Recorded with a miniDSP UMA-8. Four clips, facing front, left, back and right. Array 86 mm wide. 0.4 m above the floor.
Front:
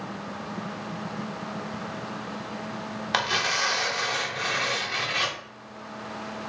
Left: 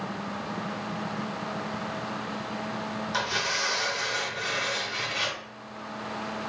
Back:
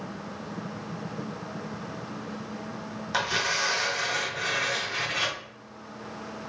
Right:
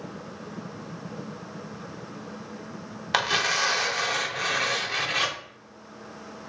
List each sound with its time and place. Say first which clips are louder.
3.1 s tearing paper: right 7 dB, front 1 dB; 55° right, 1.0 m